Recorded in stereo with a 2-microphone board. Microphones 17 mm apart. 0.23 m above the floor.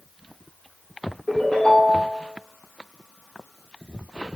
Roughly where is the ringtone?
Left.